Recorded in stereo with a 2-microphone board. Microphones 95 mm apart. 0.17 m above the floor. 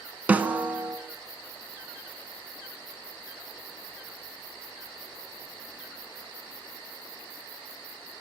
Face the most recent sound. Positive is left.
turn(degrees=-20)  # may be behind; listen again after turning